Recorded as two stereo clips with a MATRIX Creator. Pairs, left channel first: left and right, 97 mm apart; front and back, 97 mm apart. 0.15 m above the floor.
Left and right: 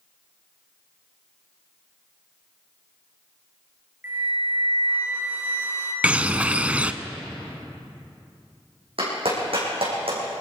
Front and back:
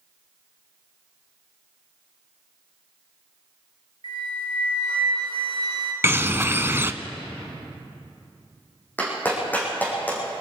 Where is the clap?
70° right, 5.5 m.